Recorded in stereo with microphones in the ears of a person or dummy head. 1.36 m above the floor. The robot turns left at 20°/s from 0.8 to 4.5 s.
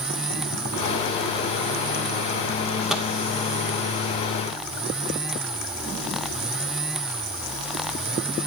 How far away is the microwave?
About 0.7 m.